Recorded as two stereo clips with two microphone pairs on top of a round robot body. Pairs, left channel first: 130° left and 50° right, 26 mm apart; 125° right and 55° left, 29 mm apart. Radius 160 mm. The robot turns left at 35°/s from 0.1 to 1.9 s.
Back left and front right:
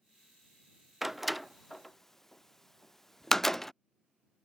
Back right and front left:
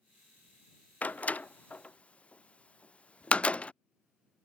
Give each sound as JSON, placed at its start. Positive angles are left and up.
{"t": 1.0, "sound": "a door slam", "azimuth_deg": -135}